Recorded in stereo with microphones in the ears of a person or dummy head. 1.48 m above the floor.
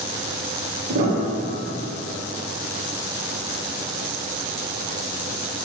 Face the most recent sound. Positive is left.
turn(degrees=-45)  # may be behind; listen again after turning